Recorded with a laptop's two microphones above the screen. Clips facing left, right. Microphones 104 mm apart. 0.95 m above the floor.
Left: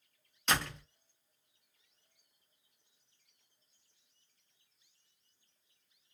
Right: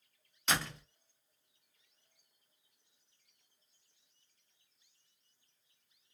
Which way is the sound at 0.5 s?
Centre (ahead or behind).